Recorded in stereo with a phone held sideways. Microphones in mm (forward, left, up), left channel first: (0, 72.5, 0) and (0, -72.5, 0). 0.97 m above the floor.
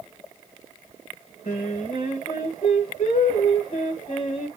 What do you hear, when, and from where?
1.4 s singing: 60° left (ahead or behind), 1.3 m